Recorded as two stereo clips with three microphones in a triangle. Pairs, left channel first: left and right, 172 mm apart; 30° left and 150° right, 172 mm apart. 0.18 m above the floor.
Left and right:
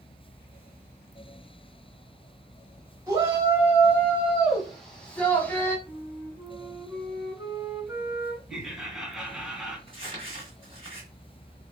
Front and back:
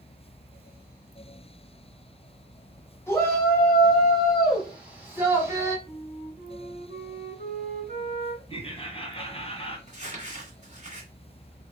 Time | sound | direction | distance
3.1 | a shout | 35° right | 1.7 m
5.9 | a flute | 155° right | 2.5 m
8.5 | laughter | 5° right | 1.4 m
9.9 | crumpling | 130° right | 2 m